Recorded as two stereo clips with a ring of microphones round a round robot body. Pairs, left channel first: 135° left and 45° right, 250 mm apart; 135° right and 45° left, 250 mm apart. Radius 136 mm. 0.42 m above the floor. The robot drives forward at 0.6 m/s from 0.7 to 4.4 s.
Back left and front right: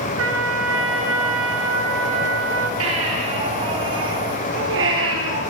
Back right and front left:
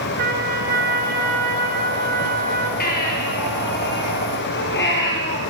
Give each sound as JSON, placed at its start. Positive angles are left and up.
{"t": 0.2, "sound": "a trumpet", "azimuth_deg": -10, "distance_m": 5.0}
{"t": 2.8, "sound": "a baby crying", "azimuth_deg": -80, "distance_m": 8.5}